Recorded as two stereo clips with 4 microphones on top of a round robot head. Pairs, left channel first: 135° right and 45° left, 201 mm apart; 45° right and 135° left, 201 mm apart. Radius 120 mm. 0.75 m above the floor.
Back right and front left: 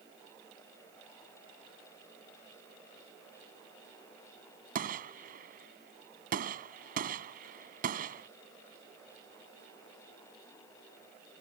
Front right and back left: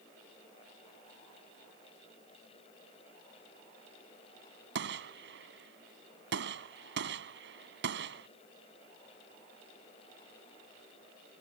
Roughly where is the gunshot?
Left.